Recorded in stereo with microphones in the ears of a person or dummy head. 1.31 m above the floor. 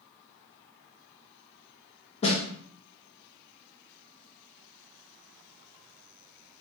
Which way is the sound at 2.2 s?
35° left (ahead or behind).